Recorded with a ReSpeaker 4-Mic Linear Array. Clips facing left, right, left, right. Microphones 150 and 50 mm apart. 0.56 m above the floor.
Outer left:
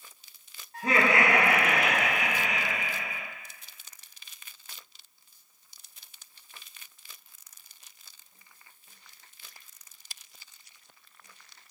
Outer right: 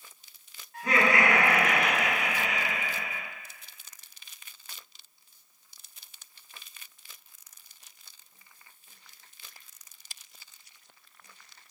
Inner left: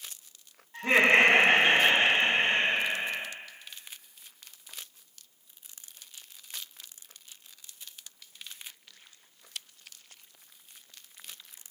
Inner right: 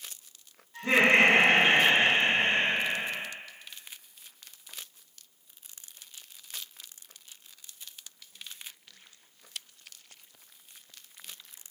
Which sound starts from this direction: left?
Laughter, at 0.7 s.